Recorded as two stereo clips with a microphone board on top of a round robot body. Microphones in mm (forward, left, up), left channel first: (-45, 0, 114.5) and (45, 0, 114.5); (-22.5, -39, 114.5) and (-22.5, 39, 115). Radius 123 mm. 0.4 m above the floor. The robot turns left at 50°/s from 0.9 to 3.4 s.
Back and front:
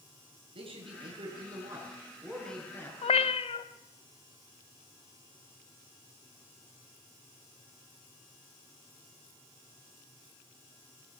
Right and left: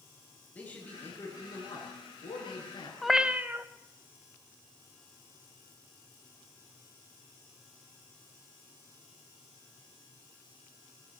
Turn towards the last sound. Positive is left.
turn(degrees=160)